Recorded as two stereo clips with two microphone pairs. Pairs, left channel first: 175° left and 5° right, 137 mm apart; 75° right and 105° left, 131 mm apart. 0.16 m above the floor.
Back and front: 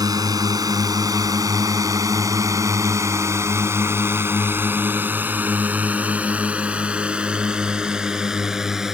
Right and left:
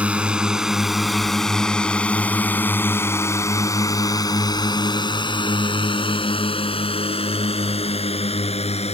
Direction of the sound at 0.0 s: 30° left.